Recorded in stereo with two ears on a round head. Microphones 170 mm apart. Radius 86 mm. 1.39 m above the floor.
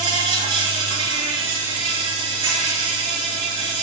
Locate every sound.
0.0 s an insect: 25° right (ahead or behind), 4.5 m